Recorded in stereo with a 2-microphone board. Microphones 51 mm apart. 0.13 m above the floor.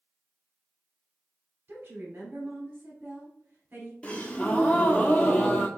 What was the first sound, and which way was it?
A woman speaking, 40° right (ahead or behind).